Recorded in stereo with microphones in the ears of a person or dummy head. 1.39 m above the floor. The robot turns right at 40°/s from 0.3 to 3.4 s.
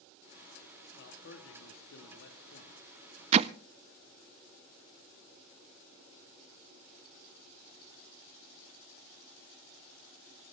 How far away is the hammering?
About 0.5 m.